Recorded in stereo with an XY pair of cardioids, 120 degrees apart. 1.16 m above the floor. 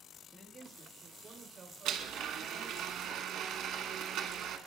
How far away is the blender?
About 1.1 m.